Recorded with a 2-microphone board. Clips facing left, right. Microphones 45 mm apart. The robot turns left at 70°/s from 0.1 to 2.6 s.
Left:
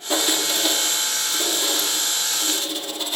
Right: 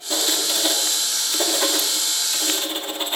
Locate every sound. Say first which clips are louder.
0.1 s writing: left 2 dB; 25° left, 2.0 m; by 3.2 s 150° right, 2.0 m